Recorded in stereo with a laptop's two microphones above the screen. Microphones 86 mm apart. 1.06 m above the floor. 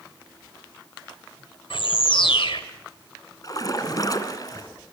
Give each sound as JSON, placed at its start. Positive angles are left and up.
{"t": 1.7, "sound": "a bird", "side_deg": 70, "distance_m": 2.0}
{"t": 3.4, "sound": "a splash", "side_deg": 45, "distance_m": 1.9}